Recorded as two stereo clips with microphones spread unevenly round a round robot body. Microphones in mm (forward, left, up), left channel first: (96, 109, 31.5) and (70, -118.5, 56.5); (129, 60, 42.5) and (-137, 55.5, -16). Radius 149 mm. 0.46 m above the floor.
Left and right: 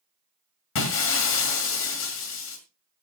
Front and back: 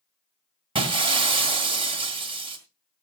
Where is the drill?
No drill in this recording.